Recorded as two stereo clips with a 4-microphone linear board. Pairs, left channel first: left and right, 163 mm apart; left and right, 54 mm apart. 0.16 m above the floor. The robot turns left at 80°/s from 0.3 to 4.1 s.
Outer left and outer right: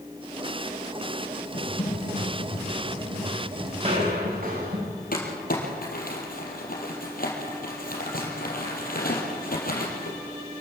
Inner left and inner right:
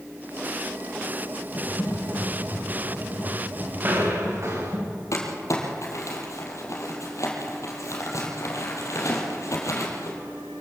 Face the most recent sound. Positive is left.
turn(degrees=65)  # may be behind; listen again after turning